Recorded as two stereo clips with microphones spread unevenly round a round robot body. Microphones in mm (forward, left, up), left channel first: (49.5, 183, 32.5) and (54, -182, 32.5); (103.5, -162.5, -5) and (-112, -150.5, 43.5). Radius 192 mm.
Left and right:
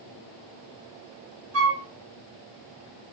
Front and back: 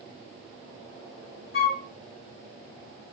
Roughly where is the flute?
Ahead right.